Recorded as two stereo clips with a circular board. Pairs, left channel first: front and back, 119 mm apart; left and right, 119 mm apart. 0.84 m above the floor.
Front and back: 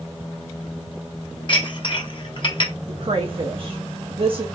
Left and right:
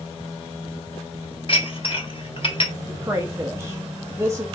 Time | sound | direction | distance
1.5 | dishes clattering | 50° left | 1.1 m
2.9 | a woman speaking | 150° right | 0.7 m